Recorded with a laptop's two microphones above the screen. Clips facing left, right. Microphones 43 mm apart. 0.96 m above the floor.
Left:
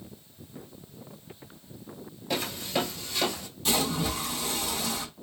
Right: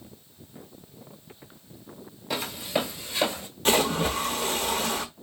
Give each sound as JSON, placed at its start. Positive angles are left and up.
{"t": 2.3, "sound": "footsteps", "side_deg": 0, "distance_m": 1.0}
{"t": 3.6, "sound": "a splash", "side_deg": -50, "distance_m": 0.7}